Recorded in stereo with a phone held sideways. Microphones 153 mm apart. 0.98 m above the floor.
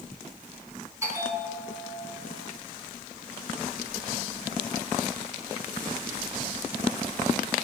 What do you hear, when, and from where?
1.0 s a bell: 20° right (ahead or behind), 5.5 m